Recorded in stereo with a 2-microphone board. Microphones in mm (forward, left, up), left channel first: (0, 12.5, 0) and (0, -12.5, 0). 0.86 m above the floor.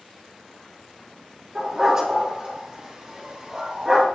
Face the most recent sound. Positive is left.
turn(degrees=-25)  # may be behind; listen again after turning